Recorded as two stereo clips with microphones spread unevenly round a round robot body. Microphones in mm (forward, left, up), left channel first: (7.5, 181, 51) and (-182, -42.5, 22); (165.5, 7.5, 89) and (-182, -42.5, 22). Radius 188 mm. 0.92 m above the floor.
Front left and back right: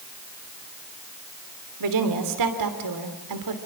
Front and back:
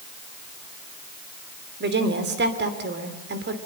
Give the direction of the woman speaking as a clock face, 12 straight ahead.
4 o'clock.